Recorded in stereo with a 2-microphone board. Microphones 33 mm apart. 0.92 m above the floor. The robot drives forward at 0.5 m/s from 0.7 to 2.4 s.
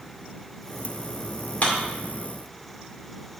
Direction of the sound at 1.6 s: 50° left (ahead or behind).